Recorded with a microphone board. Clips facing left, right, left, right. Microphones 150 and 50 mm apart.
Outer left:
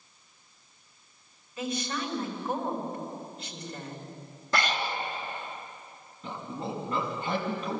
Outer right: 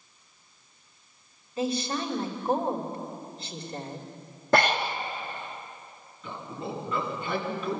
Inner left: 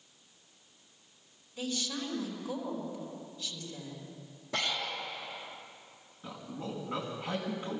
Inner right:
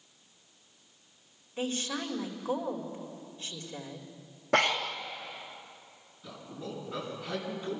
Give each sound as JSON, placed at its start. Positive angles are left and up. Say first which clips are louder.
{"t": 1.6, "sound": "a woman speaking", "louder": "outer right 4 dB, inner right 3 dB", "side_deg": -35, "distance_m": 3.0}
{"t": 4.5, "sound": "breathing", "louder": "outer right 6 dB, inner right 7 dB", "side_deg": -55, "distance_m": 1.4}
{"t": 6.2, "sound": "a man speaking", "louder": "outer left 1 dB, inner left 1 dB", "side_deg": 40, "distance_m": 6.0}